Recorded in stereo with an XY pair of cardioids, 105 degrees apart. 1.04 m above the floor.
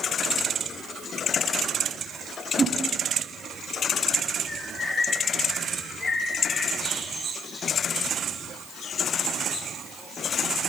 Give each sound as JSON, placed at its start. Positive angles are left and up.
{"t": 2.6, "sound": "a whoosh", "azimuth_deg": -35, "distance_m": 2.5}
{"t": 4.5, "sound": "a bird", "azimuth_deg": 35, "distance_m": 8.0}